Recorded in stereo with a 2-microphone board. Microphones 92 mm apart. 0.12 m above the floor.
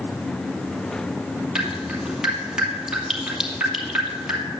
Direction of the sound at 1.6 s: 10° right (ahead or behind).